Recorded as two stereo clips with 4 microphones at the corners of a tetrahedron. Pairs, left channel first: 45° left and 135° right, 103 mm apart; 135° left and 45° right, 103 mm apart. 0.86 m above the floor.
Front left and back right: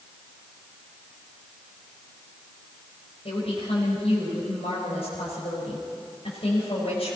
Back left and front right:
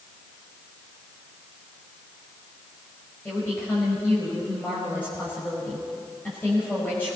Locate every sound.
3.2 s a woman speaking: 65° left, 5 m